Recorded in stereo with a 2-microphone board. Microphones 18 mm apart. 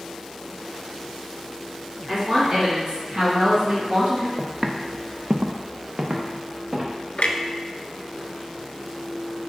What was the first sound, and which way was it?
A woman speaking, 20° right (ahead or behind).